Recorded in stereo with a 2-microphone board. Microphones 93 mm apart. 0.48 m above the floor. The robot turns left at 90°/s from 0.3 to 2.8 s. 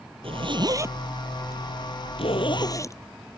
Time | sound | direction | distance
0.2 | a zipper | 80° right | ?